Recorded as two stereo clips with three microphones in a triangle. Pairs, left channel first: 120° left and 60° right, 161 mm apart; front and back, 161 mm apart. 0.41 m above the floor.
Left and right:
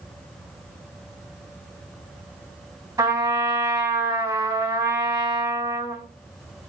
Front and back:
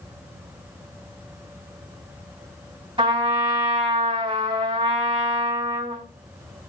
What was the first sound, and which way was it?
A trumpet, 130° right.